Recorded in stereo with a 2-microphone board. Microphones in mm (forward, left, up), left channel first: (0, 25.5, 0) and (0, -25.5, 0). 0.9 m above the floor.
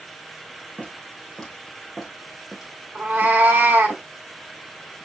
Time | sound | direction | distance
0.8 | footsteps | 20° left (ahead or behind) | 1.4 m
3.0 | a cat meowing | 40° right (ahead or behind) | 0.8 m